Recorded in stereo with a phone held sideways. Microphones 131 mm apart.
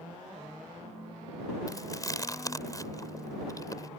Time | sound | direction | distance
1.7 | chewing | 25° left (ahead or behind) | ?